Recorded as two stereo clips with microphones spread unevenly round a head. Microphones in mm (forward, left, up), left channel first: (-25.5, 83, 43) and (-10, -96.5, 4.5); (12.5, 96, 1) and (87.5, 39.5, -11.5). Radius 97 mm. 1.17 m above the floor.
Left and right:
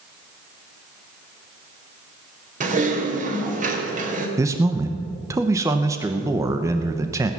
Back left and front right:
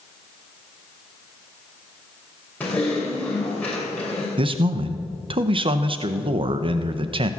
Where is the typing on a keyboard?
135° right, 3 m.